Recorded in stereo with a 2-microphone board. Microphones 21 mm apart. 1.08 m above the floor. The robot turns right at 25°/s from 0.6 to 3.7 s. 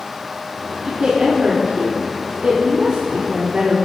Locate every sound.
0.8 s a woman speaking: 140° right, 3.5 m; by 3.8 s 70° right, 3.5 m